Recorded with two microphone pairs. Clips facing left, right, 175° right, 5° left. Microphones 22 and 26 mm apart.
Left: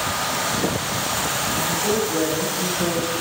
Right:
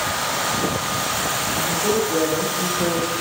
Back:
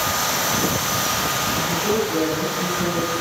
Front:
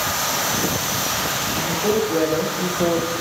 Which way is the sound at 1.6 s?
40° right.